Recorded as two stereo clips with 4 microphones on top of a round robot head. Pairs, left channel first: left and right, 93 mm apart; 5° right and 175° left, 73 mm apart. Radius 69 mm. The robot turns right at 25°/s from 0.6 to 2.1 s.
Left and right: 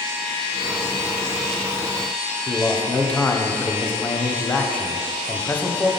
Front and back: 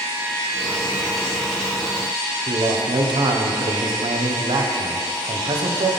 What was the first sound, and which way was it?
A man speaking, 165° left.